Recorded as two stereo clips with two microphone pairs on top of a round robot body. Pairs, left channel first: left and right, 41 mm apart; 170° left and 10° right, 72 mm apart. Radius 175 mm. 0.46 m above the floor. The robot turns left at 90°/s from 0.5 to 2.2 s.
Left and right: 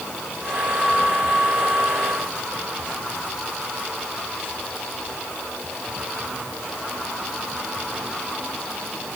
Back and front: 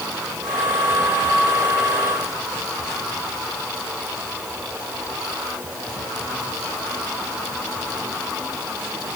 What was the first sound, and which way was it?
Only background noise.